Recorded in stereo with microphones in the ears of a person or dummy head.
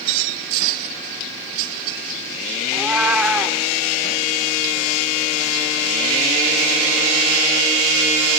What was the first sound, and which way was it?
A cat meowing, 5° right (ahead or behind).